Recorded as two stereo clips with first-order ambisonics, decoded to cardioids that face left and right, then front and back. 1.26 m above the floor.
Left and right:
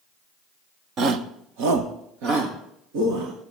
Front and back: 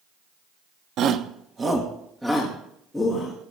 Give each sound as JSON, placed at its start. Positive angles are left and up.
{"t": 1.0, "sound": "a shout", "azimuth_deg": -140, "distance_m": 1.0}